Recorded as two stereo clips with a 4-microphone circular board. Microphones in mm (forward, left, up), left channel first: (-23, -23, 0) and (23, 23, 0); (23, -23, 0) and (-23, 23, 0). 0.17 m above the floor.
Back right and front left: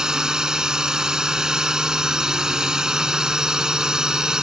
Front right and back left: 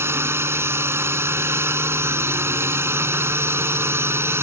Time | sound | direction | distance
0.0 | a drone | 120° left | ?